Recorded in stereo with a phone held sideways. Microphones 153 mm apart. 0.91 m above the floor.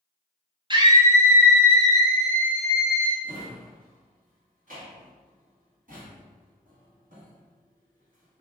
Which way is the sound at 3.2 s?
60° right (ahead or behind).